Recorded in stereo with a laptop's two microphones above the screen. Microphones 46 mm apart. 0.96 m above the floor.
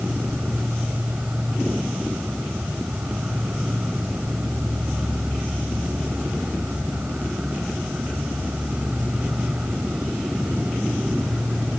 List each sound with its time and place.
0.0 s an insect: 25° right (ahead or behind)